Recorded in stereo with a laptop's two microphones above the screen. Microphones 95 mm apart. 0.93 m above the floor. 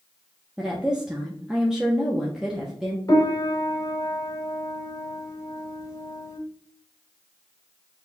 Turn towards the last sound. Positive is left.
turn(degrees=35)  # may be behind; listen again after turning